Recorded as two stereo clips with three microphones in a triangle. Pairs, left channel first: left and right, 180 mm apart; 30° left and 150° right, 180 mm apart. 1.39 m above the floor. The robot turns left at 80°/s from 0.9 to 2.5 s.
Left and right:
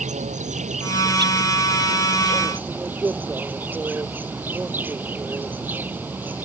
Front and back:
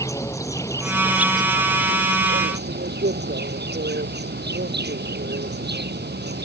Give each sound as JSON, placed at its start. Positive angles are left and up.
{"t": 0.0, "sound": "an insect", "azimuth_deg": -40}